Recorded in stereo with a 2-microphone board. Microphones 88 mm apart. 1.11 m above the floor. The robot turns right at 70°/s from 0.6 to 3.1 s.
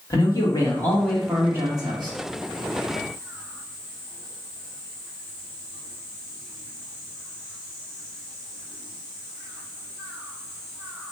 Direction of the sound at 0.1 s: 140° left.